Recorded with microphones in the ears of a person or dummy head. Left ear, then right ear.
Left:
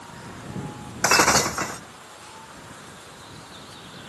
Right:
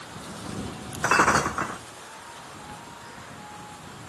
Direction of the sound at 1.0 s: 20° left (ahead or behind).